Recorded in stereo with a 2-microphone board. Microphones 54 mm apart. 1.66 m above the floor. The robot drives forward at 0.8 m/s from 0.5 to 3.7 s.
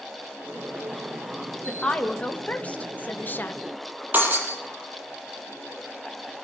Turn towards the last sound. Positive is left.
turn(degrees=-35)  # may be behind; listen again after turning